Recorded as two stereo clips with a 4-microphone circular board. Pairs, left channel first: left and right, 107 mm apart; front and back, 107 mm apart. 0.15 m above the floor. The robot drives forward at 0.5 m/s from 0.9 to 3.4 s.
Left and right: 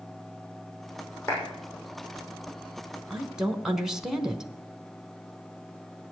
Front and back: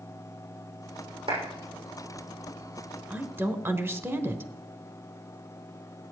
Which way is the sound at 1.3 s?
160° left.